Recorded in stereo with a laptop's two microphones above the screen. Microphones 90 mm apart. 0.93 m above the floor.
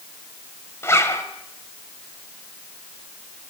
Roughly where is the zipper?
Left.